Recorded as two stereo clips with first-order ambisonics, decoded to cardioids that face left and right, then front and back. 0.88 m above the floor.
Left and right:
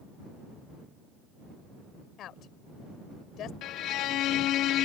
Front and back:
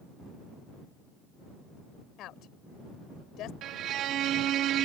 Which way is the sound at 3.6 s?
130° left.